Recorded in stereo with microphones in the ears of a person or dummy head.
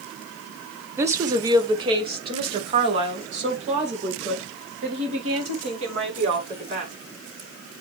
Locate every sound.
1.0 s a woman speaking: 15° right (ahead or behind), 0.9 m; by 6.9 s 40° right (ahead or behind), 5.5 m